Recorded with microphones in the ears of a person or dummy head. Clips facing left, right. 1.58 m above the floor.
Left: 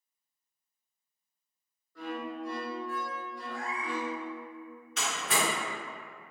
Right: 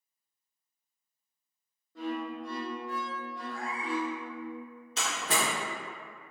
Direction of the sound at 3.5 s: 15° left (ahead or behind).